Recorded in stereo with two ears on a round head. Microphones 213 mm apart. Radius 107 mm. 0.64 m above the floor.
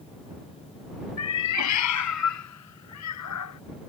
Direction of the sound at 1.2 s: 80° left.